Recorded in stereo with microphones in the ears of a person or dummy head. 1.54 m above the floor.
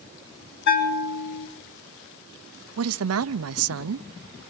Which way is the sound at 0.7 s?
60° left (ahead or behind).